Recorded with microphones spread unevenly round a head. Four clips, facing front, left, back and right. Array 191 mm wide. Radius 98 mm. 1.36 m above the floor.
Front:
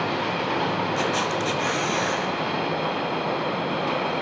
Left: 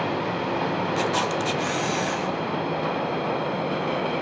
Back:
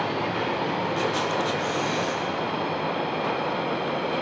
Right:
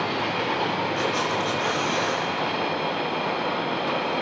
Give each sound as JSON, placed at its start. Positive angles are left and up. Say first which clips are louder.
{"t": 1.0, "sound": "a camera shutter", "louder": "left 1 dB, front 1 dB", "azimuth_deg": 80, "distance_m": 0.7}